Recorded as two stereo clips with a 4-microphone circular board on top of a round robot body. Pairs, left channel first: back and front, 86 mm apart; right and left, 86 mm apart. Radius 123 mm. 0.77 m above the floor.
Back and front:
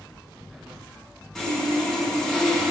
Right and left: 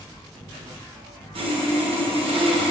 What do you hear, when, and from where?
1.4 s sawing: 95° left, 1.9 m